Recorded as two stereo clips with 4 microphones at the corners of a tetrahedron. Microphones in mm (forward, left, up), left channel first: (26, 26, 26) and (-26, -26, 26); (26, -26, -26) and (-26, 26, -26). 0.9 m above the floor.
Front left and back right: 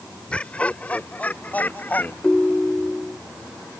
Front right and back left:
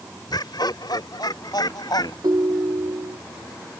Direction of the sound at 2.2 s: 120° left.